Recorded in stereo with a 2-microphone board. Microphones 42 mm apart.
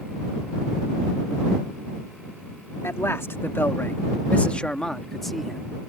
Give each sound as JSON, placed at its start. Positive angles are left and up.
{"t": 2.8, "sound": "a man speaking", "side_deg": 80}